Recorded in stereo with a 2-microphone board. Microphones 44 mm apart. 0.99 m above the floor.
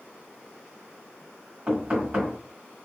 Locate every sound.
1.7 s knocking: 30° right (ahead or behind), 1.3 m